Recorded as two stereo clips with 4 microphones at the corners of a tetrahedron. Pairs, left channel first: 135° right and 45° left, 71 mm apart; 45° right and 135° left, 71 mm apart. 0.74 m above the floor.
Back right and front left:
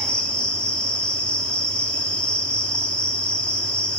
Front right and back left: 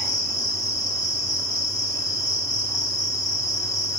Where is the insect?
65° right, 1.6 m.